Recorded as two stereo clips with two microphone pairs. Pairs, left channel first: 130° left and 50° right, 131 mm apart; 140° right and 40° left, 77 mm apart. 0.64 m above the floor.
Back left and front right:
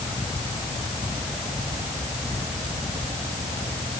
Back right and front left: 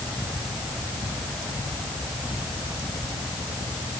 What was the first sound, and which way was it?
Only background noise.